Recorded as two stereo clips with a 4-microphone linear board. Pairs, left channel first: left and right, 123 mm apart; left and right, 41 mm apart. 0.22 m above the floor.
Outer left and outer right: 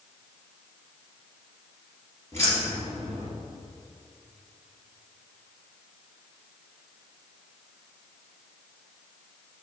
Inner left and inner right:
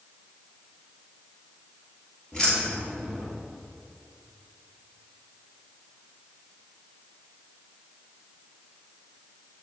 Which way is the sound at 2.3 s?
20° left (ahead or behind).